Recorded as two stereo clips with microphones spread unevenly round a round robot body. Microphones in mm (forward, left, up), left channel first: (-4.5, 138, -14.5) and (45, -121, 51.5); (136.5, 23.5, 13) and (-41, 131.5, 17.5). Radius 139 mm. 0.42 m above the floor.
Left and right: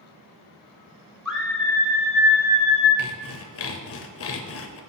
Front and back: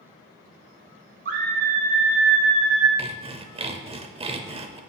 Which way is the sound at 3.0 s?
85° left.